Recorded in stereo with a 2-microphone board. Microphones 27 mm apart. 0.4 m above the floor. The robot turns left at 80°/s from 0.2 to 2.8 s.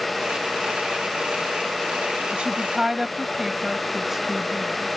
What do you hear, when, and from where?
2.3 s a woman speaking: 130° right; by 4.9 s 165° right